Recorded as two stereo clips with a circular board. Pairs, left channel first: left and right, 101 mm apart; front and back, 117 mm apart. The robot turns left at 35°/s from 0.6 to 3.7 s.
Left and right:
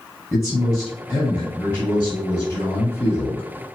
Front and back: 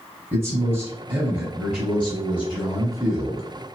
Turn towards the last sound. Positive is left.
turn(degrees=65)